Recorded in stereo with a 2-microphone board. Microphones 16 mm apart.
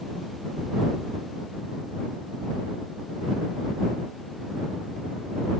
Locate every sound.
Only background noise.